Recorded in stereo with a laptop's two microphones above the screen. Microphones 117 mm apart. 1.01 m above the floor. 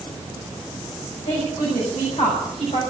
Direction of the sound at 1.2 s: 80° left.